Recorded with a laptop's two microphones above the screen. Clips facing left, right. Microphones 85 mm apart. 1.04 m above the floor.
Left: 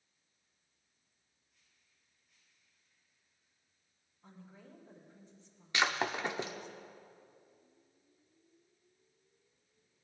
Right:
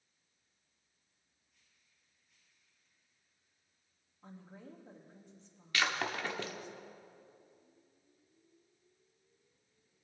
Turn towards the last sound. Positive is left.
turn(degrees=20)  # may be behind; listen again after turning